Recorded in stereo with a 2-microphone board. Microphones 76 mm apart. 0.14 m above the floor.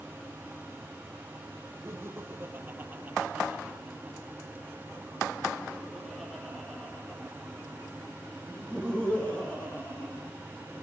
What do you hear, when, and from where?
1.9 s laughter: 35° right (ahead or behind), 4.5 m; by 10.2 s 15° left (ahead or behind), 8 m